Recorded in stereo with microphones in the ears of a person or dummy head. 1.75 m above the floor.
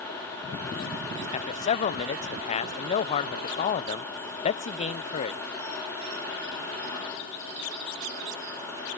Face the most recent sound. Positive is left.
turn(degrees=35)  # may be behind; listen again after turning